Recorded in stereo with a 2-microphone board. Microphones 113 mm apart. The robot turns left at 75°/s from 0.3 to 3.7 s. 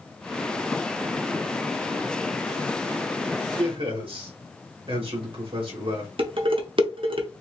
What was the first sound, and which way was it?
A man speaking, 45° right (ahead or behind).